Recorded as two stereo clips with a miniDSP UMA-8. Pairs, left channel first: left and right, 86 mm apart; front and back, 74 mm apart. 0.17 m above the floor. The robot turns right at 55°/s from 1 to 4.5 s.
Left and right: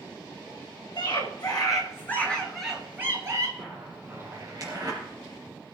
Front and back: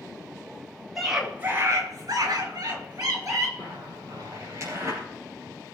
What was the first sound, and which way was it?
A scream, 95° left.